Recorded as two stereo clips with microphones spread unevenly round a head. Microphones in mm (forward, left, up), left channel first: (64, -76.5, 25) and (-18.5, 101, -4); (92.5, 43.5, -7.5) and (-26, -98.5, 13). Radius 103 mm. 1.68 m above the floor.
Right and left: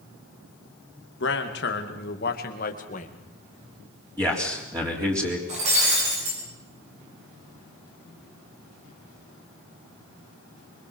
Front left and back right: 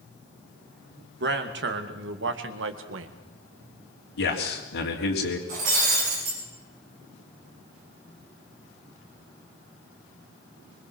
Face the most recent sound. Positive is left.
turn(degrees=175)